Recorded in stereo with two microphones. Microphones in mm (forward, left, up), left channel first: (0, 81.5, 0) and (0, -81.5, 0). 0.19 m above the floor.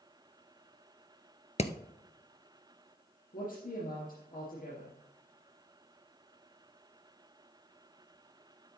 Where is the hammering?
45° left (ahead or behind), 0.7 m.